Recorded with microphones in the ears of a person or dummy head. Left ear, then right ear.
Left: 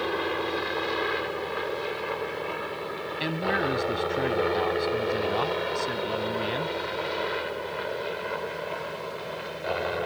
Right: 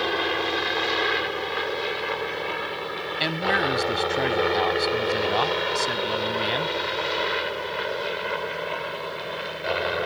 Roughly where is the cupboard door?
I don't hear a cupboard door.